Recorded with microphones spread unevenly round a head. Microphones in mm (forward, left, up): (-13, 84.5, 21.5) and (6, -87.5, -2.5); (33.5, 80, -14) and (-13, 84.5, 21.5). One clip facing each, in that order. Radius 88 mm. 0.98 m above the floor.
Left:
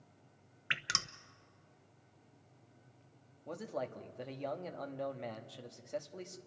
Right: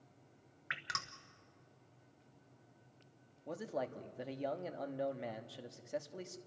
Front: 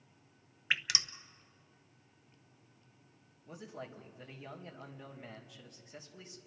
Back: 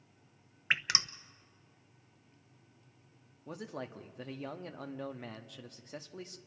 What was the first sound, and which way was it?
Dripping, 90° left.